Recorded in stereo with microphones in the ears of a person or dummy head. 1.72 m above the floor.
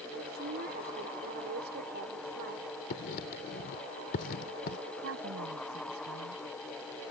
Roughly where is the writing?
Left.